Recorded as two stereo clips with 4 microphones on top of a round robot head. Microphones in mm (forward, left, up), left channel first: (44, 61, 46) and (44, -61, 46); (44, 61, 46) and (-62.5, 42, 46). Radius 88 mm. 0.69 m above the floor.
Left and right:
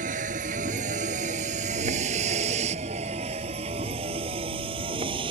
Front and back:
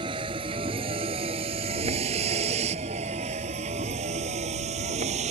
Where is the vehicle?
115° right; by 5.3 s 145° right.